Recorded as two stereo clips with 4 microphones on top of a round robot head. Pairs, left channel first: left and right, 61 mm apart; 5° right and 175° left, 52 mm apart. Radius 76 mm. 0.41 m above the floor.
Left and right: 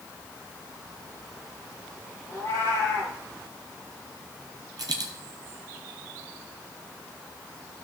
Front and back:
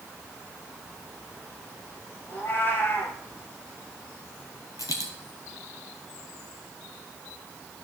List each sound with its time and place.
2.3 s a cat meowing: 45° left, 3 m
4.8 s a dropped coin: 50° right, 0.5 m